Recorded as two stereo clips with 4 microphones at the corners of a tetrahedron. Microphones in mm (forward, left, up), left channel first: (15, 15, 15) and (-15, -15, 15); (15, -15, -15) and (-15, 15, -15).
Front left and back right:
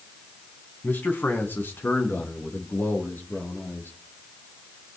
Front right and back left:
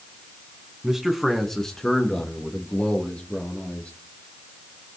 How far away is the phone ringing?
No phone ringing in this recording.